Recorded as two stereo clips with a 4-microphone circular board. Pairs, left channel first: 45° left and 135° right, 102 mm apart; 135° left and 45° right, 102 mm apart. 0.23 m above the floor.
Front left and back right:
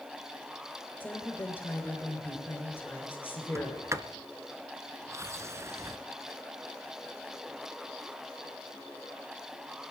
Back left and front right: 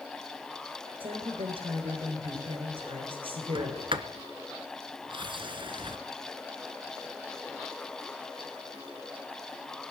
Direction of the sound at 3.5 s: 75° right.